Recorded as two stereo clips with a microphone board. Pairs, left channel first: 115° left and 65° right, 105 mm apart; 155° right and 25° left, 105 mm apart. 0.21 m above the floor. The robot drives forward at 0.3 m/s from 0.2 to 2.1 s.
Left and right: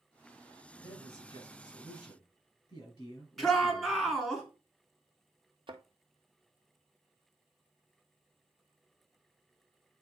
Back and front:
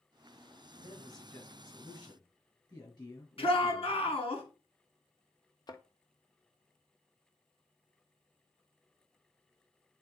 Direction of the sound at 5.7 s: 105° right.